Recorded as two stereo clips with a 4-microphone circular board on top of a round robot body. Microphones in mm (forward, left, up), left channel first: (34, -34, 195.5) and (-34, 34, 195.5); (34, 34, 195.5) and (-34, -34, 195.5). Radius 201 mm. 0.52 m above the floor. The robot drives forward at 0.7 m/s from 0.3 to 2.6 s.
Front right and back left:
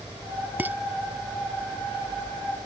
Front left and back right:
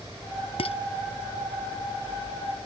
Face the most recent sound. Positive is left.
turn(degrees=70)